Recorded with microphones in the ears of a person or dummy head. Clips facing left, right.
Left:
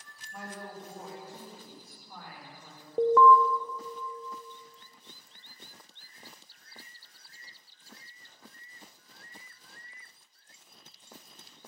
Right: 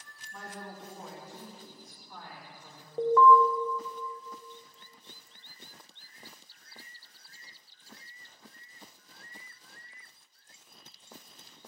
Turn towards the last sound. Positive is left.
turn(degrees=65)  # may be behind; listen again after turning